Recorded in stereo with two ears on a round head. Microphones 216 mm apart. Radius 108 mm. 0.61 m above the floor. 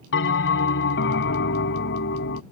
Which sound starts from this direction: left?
A bell, at 0.1 s.